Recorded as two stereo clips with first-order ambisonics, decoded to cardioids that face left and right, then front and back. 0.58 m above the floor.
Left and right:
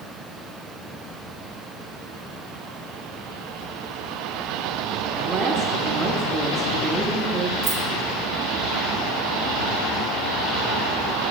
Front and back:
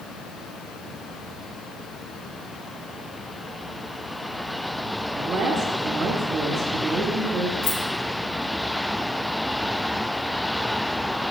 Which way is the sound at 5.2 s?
135° right.